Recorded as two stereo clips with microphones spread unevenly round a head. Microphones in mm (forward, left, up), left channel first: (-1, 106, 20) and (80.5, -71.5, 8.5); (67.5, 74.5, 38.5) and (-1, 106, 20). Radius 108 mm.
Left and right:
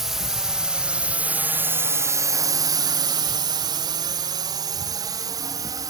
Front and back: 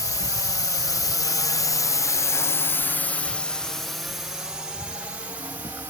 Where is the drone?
20° left; by 5.9 s 135° right.